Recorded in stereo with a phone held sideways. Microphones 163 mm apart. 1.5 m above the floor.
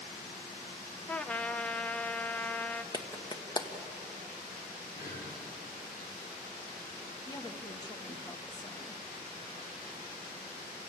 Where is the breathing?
70° left (ahead or behind), 5 m.